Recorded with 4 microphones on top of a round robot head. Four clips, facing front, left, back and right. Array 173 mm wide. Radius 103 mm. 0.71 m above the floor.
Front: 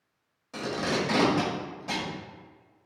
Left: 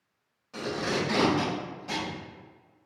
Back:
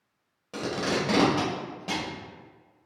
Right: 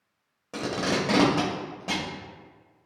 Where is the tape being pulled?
115° right, 1.8 m.